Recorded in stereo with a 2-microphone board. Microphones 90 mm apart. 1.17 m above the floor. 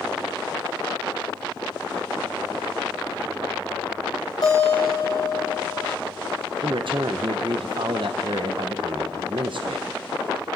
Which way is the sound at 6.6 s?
65° right (ahead or behind).